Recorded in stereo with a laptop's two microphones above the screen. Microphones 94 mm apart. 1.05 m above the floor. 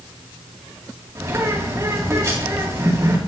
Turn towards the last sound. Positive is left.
turn(degrees=-30)  # may be behind; listen again after turning